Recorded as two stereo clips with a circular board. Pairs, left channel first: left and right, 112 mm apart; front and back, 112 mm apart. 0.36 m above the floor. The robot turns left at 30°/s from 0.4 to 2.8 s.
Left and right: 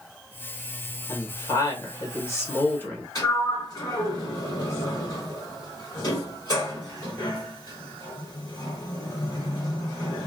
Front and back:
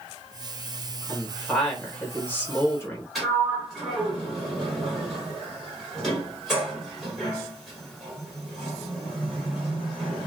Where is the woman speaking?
95° left, 1.0 m; by 3.0 s 40° left, 1.0 m.